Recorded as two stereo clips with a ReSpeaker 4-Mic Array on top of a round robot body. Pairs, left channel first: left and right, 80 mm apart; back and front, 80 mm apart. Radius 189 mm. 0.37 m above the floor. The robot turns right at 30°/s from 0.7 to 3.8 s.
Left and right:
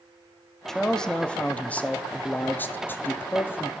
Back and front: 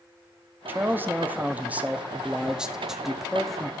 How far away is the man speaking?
About 0.8 m.